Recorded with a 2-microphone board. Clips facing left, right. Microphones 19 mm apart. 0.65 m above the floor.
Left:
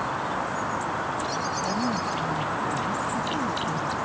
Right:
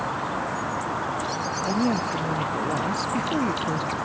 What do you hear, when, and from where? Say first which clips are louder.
1.7 s a woman speaking: right 2 dB; 65° right (ahead or behind)